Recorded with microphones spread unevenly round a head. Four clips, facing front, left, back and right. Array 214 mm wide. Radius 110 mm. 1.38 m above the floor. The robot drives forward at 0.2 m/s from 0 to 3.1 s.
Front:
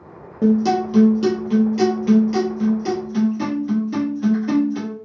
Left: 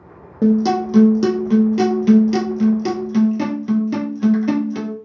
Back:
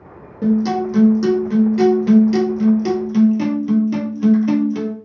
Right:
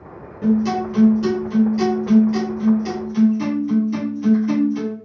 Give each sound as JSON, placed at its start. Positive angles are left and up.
{"t": 0.4, "sound": "a guitar", "azimuth_deg": 70, "distance_m": 0.5}